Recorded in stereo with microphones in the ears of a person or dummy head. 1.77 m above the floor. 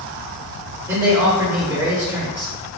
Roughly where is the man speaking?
Centre.